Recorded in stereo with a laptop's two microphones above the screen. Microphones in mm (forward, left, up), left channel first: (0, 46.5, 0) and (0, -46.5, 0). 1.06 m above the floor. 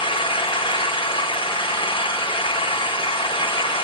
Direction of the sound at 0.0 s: 65° left (ahead or behind).